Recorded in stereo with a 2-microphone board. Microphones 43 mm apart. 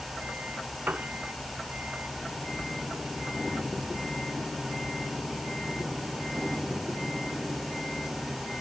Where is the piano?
40° right (ahead or behind), 0.6 m.